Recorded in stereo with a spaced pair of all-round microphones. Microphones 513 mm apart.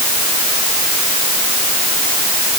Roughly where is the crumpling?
I don't hear crumpling.